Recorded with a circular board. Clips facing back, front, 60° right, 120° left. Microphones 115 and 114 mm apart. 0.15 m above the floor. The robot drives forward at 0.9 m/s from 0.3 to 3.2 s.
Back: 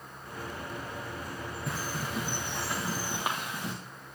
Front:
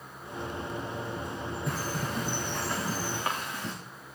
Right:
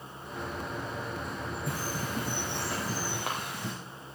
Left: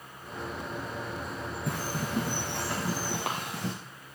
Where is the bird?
90° left, 6.5 m; by 3.7 s 105° left, 7 m.